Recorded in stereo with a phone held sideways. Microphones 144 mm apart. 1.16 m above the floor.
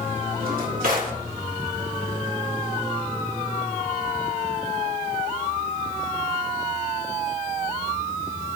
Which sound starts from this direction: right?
A drawer, at 0.4 s.